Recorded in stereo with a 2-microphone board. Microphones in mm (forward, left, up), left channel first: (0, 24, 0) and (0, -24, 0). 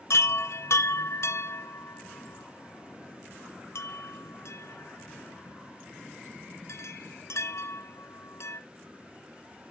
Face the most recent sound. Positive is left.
turn(degrees=65)  # may be behind; listen again after turning